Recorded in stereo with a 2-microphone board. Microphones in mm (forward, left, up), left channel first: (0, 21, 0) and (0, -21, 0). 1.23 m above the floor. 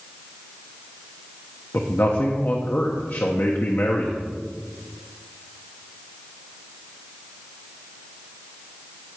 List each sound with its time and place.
1.7 s a man speaking: 55° left (ahead or behind), 0.9 m